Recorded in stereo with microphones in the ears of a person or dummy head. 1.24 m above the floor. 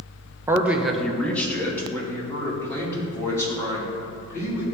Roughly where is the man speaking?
Centre.